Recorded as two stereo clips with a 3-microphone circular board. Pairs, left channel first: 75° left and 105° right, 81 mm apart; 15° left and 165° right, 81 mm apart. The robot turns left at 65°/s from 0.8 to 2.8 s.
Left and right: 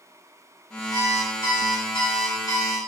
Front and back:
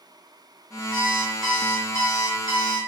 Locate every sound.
0.9 s an alarm clock: 135° left, 1.9 m; by 2.8 s 15° left, 1.9 m